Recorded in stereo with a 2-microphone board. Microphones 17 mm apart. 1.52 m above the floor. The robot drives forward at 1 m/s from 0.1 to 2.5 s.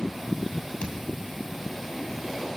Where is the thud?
70° left (ahead or behind), 5 m.